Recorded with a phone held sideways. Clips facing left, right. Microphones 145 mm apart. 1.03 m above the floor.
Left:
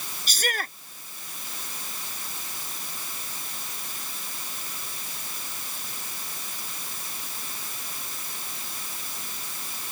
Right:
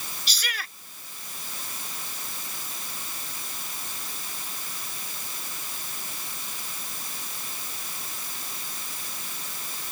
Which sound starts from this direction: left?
A shout, at 0.3 s.